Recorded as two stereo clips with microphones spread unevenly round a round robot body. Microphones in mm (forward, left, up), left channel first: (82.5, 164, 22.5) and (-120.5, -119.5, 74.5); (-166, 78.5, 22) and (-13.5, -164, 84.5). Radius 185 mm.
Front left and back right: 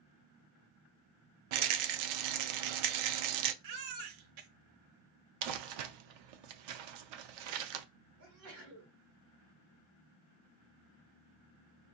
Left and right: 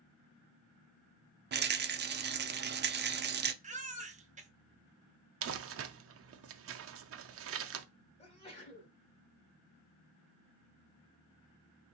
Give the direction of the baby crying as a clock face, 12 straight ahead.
4 o'clock.